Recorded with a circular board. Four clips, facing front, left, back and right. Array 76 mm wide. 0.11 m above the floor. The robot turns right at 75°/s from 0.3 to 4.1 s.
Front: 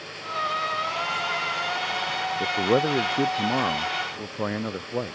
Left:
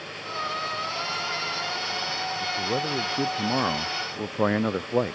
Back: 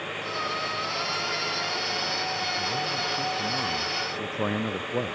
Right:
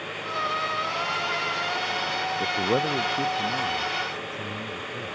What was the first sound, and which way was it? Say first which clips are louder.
A man speaking: right 4 dB, front 7 dB; 40° right.